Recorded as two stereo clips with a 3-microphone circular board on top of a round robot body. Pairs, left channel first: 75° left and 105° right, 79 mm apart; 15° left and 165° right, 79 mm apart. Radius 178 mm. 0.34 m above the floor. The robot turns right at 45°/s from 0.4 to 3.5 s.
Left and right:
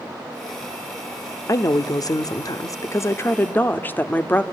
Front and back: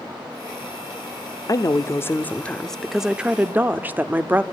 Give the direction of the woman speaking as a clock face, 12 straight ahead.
11 o'clock.